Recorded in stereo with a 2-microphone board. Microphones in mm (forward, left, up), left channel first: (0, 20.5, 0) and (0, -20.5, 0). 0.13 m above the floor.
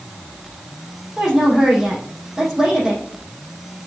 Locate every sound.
1.2 s a woman speaking: 15° right (ahead or behind), 5 m